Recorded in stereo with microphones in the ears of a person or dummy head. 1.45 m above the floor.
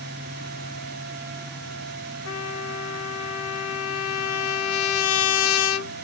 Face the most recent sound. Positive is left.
turn(degrees=70)  # may be behind; listen again after turning